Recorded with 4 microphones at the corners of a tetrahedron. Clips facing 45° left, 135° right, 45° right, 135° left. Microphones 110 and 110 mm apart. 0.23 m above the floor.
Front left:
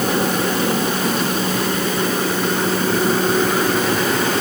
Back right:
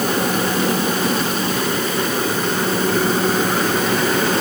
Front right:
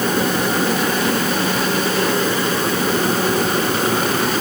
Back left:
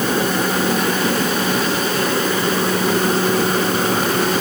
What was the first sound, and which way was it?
Only background noise.